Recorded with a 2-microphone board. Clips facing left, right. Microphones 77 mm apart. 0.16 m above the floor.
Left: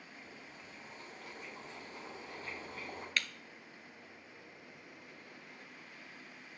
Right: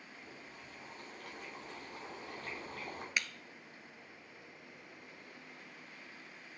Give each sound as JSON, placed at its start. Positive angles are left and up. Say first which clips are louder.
{"t": 0.2, "sound": "boiling", "louder": "right 1 dB", "side_deg": -75, "distance_m": 4.5}
{"t": 3.2, "sound": "breaking glass", "louder": "even", "side_deg": -15, "distance_m": 0.5}